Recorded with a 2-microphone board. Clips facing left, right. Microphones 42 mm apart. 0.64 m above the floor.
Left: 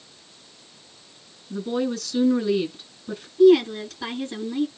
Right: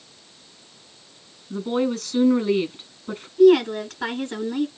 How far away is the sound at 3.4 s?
About 7.5 m.